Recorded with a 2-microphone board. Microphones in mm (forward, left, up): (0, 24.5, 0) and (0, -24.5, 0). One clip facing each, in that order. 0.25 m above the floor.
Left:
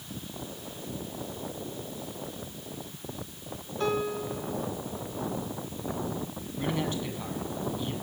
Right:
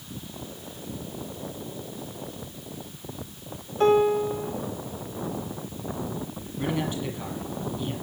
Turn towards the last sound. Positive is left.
turn(degrees=-10)  # may be behind; listen again after turning